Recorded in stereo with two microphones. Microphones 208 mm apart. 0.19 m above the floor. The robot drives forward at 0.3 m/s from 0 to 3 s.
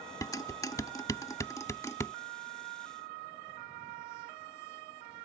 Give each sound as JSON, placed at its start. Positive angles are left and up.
{"t": 0.2, "sound": "dishes clattering", "side_deg": 15}